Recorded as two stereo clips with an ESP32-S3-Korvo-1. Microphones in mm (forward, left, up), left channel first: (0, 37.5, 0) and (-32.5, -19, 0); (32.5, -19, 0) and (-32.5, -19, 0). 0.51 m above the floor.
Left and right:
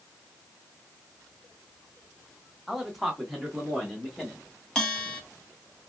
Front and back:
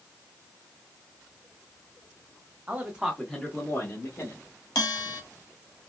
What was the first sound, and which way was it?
A man speaking, 155° left.